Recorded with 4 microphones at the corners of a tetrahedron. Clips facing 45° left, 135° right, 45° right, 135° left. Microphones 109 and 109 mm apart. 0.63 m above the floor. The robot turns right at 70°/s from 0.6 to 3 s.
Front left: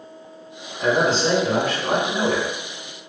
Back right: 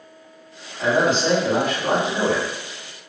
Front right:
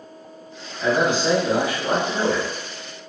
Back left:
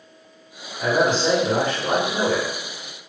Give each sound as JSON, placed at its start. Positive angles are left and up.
{"t": 0.8, "sound": "a man speaking", "azimuth_deg": -175, "distance_m": 1.4}